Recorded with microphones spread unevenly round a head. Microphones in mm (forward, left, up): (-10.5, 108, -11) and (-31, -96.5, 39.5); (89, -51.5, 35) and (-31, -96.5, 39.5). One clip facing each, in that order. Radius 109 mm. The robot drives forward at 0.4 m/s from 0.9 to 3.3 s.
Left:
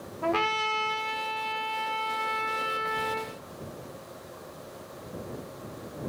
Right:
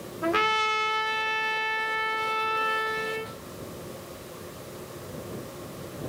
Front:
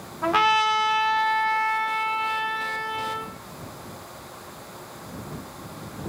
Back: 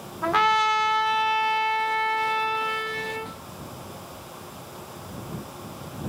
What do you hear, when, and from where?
0.2 s a trumpet: 65° right, 0.7 m; by 3.3 s 155° right, 1.0 m